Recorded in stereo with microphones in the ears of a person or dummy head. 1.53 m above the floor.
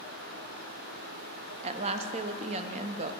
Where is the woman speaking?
30° right (ahead or behind), 0.6 m.